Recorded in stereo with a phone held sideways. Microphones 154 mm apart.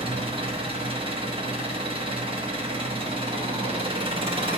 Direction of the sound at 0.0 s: 40° right (ahead or behind).